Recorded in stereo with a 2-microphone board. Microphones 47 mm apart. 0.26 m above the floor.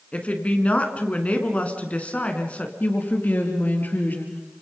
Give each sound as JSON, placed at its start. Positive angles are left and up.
{"t": 0.1, "sound": "a woman speaking", "side_deg": 30, "distance_m": 3.5}
{"t": 2.8, "sound": "a woman speaking", "side_deg": 40, "distance_m": 4.5}